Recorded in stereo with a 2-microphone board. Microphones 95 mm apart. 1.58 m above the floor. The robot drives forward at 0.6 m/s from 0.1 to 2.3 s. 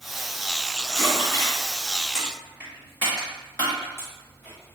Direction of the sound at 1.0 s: 40° left (ahead or behind).